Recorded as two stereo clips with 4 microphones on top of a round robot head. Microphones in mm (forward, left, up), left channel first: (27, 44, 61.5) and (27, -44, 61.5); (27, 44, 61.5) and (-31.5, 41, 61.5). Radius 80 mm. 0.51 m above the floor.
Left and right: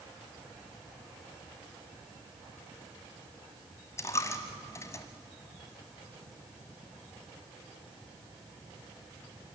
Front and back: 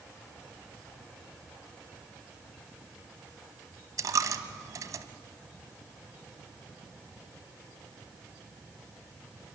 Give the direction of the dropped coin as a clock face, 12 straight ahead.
7 o'clock.